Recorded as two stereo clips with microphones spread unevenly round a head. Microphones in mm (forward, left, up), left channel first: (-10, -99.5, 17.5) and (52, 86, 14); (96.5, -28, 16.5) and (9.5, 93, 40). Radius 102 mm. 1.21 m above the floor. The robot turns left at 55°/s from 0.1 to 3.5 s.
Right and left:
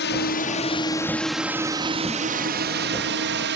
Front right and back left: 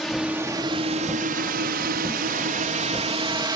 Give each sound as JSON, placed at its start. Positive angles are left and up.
{"t": 0.0, "sound": "a drone", "azimuth_deg": -140}